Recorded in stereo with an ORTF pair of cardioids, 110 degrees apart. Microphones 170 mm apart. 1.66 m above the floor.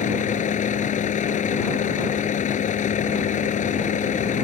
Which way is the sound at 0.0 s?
45° left.